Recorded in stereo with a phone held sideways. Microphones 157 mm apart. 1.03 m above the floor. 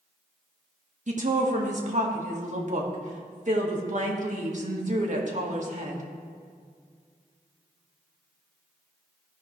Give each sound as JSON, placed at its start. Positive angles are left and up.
{"t": 1.1, "sound": "a woman speaking", "side_deg": -50, "distance_m": 1.3}